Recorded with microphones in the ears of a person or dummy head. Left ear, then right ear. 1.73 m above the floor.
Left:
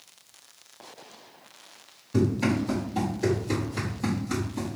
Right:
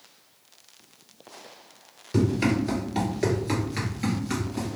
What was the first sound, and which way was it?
Running footsteps, 25° right (ahead or behind).